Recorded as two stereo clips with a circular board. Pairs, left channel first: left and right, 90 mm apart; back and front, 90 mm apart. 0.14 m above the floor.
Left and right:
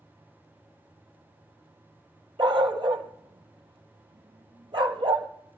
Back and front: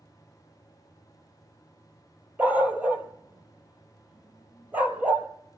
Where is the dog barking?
70° right, 1.1 m.